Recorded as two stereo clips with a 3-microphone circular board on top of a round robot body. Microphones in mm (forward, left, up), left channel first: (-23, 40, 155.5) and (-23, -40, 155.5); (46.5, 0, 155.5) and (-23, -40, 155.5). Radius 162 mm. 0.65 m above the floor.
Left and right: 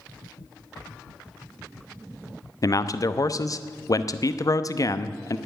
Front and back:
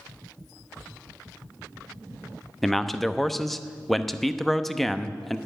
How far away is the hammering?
No hammering in this recording.